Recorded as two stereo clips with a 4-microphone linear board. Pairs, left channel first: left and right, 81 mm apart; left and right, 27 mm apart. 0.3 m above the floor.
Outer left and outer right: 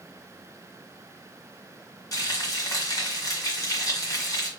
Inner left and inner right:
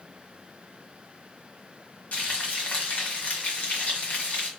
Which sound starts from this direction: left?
Frying, at 2.1 s.